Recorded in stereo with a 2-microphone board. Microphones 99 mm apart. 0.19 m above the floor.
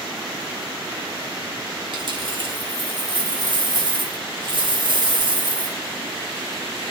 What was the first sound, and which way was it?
A dropped coin, 55° right (ahead or behind).